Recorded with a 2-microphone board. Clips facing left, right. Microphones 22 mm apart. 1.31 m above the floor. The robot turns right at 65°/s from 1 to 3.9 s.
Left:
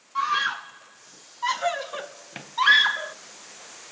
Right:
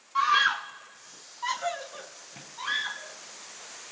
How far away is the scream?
About 0.5 m.